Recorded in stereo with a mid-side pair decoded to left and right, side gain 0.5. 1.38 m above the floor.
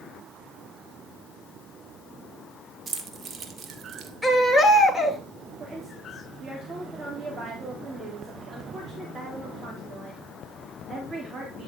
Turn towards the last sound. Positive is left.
turn(degrees=-35)